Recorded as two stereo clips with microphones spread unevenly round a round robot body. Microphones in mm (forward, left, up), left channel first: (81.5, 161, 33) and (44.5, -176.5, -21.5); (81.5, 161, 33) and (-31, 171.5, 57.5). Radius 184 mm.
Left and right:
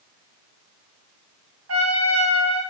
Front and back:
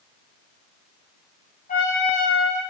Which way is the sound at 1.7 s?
45° right.